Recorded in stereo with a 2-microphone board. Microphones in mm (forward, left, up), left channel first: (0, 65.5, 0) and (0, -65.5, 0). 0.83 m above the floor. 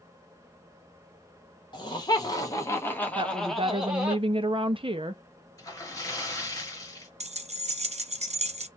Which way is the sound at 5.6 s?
25° left (ahead or behind).